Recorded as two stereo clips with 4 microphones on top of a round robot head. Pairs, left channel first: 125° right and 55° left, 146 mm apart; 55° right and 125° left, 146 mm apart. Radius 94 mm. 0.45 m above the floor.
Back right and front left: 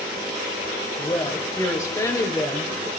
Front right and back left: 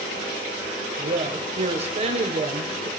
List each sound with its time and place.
1.0 s a woman speaking: 170° left, 2.0 m